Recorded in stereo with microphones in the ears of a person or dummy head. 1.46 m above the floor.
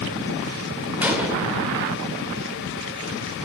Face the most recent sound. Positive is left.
turn(degrees=-10)  # may be behind; listen again after turning